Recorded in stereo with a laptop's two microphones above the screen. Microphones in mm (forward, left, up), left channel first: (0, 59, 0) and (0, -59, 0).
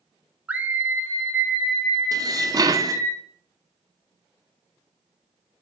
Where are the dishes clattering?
30° right (ahead or behind), 0.5 m.